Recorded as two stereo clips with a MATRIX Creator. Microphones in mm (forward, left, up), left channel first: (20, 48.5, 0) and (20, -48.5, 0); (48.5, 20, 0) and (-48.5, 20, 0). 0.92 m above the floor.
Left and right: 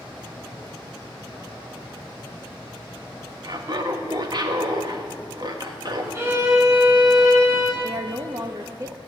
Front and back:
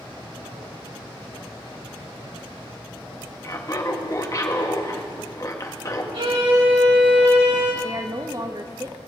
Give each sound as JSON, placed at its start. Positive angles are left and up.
{"t": 3.4, "sound": "laughter", "azimuth_deg": -50, "distance_m": 1.3}
{"t": 6.1, "sound": "a violin", "azimuth_deg": -150, "distance_m": 2.5}
{"t": 7.8, "sound": "a woman speaking", "azimuth_deg": -135, "distance_m": 0.8}